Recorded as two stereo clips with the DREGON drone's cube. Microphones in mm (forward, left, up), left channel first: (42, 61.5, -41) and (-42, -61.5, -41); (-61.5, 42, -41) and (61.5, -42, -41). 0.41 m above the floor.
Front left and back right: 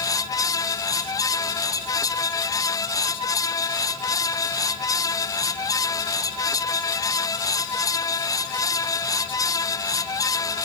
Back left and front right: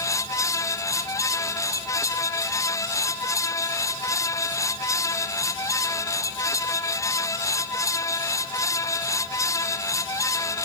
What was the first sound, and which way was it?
Only background noise.